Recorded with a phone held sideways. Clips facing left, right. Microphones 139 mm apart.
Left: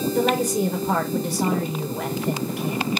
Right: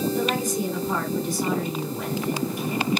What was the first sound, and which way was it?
A woman speaking, 75° left (ahead or behind).